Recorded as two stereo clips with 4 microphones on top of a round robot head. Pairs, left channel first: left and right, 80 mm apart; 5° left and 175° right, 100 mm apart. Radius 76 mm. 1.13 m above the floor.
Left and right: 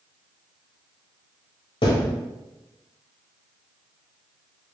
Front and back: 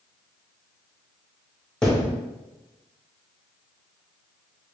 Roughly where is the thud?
Left.